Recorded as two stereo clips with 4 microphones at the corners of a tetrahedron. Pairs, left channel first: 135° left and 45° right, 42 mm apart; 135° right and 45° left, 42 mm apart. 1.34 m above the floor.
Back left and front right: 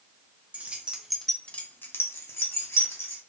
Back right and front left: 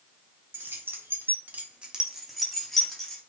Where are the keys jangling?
10° left, 0.8 m; by 3.2 s 145° left, 1.3 m.